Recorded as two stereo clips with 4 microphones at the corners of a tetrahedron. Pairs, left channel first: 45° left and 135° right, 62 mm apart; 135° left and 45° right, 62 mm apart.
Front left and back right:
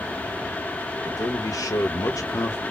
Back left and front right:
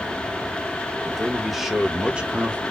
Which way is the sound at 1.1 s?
50° left.